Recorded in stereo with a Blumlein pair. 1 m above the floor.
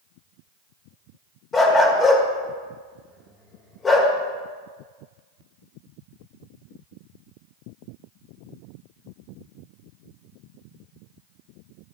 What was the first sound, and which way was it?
A dog barking, 15° left.